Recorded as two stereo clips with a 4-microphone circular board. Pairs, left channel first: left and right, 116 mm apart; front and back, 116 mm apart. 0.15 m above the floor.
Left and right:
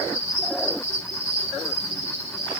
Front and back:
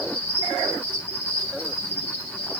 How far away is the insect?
About 5.5 m.